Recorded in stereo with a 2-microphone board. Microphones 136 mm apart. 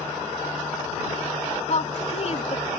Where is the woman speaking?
55° left (ahead or behind).